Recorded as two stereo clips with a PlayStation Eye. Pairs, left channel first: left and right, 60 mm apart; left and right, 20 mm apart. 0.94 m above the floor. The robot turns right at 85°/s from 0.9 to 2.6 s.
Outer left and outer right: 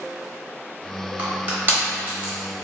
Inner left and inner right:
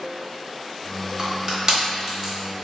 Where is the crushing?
25° right (ahead or behind), 0.8 m; by 2.3 s 15° right (ahead or behind), 0.8 m.